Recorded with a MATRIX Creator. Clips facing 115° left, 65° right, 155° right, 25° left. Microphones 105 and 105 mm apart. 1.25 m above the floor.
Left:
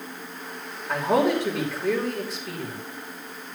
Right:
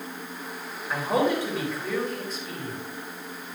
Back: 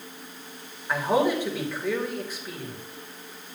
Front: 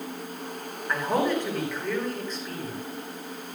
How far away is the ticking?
No ticking in this recording.